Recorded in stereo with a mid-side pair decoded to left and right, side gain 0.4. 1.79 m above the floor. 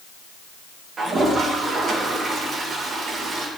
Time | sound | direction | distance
1.0 | a toilet flushing | 50° right | 3 m